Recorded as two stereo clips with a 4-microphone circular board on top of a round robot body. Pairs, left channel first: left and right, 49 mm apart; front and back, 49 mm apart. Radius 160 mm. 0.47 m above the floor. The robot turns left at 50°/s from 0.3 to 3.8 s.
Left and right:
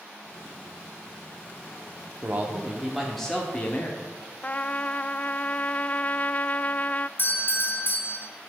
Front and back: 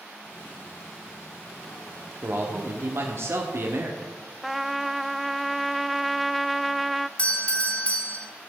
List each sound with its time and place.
2.2 s a man speaking: 140° right, 1.8 m; by 4.2 s 140° left, 1.8 m
4.4 s a trumpet: 95° left, 0.6 m
7.2 s a doorbell: 60° left, 3 m